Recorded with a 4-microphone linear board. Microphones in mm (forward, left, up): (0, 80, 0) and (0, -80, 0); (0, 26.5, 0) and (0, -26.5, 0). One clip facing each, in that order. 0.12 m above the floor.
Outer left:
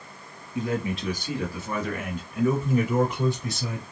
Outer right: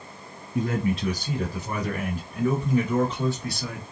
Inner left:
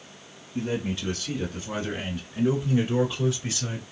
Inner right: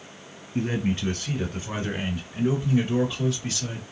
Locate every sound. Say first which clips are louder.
0.6 s a man speaking: outer right 2 dB, inner right 3 dB; 40° right (ahead or behind), 2.0 m; by 3.8 s 25° left (ahead or behind), 1.9 m